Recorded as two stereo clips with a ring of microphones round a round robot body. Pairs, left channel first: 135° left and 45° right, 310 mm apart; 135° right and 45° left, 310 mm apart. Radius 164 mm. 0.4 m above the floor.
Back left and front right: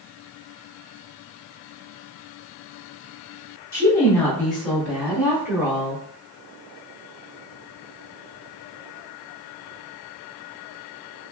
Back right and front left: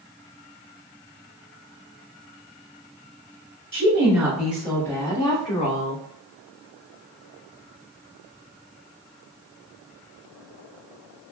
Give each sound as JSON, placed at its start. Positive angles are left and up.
{"t": 3.7, "sound": "a woman speaking", "azimuth_deg": 75, "distance_m": 1.4}